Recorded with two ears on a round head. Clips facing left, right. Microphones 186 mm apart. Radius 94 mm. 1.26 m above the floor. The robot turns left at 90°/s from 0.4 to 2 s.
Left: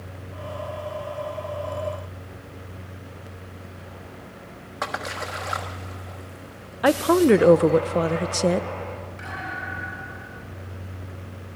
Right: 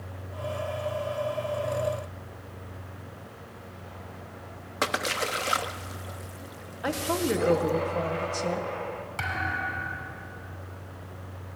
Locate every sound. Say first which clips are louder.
4.8 s a splash: right 2 dB; 40° right (ahead or behind), 1.2 m
6.8 s a woman speaking: left 11 dB; 70° left (ahead or behind), 0.7 m
9.2 s a thud: right 1 dB; 85° right, 6 m